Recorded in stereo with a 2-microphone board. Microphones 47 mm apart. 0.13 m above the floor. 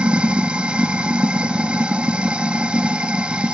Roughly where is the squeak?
I don't hear a squeak.